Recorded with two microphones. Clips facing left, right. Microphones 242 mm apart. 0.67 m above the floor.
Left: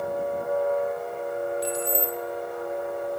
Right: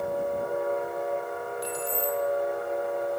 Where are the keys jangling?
25° left (ahead or behind), 1.2 m.